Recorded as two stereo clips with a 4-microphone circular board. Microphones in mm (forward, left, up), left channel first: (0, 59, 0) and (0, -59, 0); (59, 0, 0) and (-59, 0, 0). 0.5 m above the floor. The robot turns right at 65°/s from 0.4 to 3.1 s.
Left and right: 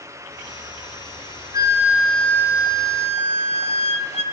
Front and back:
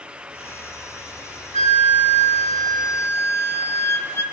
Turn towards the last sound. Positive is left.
turn(degrees=70)